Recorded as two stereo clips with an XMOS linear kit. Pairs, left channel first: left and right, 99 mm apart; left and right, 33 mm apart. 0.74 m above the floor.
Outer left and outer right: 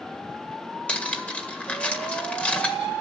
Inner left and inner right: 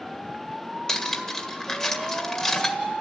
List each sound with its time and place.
0.9 s cutlery clinking: 15° left (ahead or behind), 1.7 m